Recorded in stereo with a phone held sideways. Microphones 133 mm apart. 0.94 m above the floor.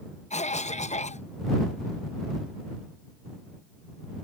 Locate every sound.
0.3 s a cough: 60° left (ahead or behind)